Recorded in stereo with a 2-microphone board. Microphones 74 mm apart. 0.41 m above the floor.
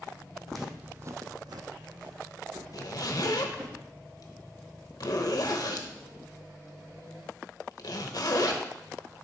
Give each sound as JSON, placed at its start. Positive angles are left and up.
{"t": 0.5, "sound": "footsteps", "side_deg": 5, "distance_m": 1.1}
{"t": 2.7, "sound": "a zipper", "side_deg": 60, "distance_m": 0.8}